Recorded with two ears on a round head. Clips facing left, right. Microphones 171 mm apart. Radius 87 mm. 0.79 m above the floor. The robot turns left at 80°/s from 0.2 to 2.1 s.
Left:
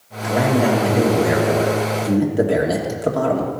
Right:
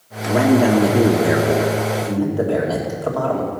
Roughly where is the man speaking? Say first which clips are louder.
Right 3 dB; ahead right.